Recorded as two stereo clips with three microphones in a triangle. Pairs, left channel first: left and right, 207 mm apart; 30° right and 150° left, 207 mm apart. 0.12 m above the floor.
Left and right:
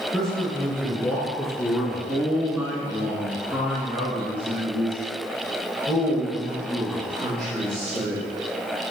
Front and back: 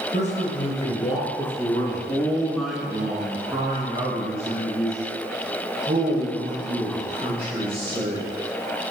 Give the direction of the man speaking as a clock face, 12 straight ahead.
12 o'clock.